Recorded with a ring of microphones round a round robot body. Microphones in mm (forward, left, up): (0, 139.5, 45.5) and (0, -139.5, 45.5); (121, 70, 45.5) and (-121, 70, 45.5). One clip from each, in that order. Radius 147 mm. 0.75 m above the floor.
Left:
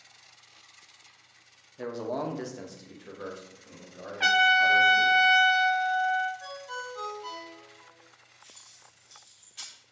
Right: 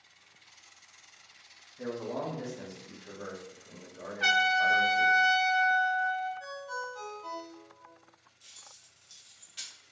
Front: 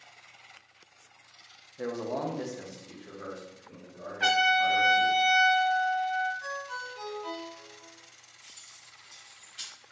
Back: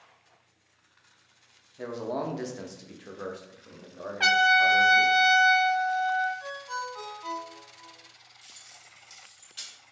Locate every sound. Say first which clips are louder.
1.8 s a man speaking: left 3 dB, even; 75° left, 0.6 m; by 5.2 s straight behind, 1.8 m
4.2 s a trumpet: left 4 dB, back 3 dB; 145° left, 0.5 m
6.4 s a ringtone: even, back 1 dB; 170° right, 1.8 m
8.4 s keys jangling: right 1 dB, back 1 dB; 155° right, 1.2 m